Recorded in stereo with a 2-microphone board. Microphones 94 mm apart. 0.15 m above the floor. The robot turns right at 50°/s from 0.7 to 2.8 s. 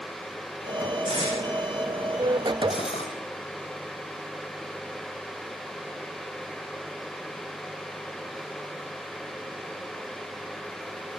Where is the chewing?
I don't hear chewing.